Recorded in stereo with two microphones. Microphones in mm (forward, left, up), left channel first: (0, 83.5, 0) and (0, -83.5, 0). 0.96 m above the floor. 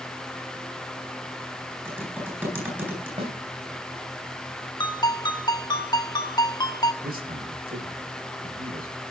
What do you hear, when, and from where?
1.9 s typing on a keyboard: 10° right (ahead or behind), 9.5 m
3.2 s a snare drum: 40° right (ahead or behind), 6 m
4.8 s a ringtone: 25° left (ahead or behind), 2.5 m
7.0 s a man speaking: 75° right (ahead or behind), 5.5 m